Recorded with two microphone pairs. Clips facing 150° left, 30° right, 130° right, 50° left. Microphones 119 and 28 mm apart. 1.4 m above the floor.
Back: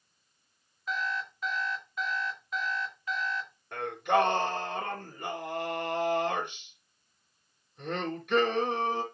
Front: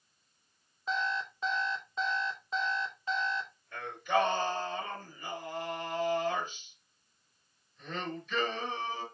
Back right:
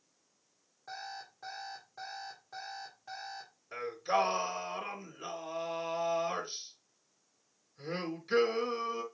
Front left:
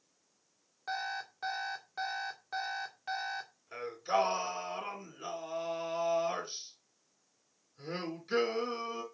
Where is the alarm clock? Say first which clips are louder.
Front 1 dB, front left 7 dB; 30° left, 2.0 m.